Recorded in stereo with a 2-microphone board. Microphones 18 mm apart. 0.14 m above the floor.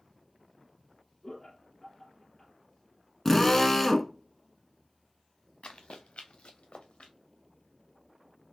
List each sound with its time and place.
1.2 s laughter: 40° left (ahead or behind), 3 m
3.2 s a drill: 15° left (ahead or behind), 0.8 m
5.6 s running footsteps: 75° left (ahead or behind), 1.0 m